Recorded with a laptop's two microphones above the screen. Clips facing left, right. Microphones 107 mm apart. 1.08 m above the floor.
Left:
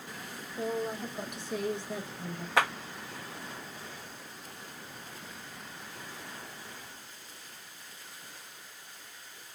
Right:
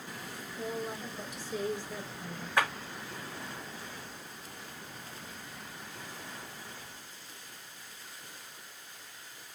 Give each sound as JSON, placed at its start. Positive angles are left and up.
{"t": 0.6, "sound": "a woman speaking", "side_deg": 40, "distance_m": 1.2}
{"t": 2.6, "sound": "a clap", "side_deg": 80, "distance_m": 1.0}